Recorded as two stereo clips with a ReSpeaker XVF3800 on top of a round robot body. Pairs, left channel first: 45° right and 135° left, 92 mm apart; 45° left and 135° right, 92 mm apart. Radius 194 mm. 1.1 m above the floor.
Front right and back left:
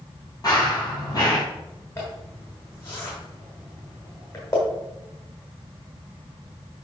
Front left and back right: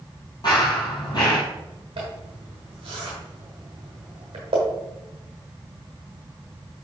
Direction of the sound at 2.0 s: 105° right.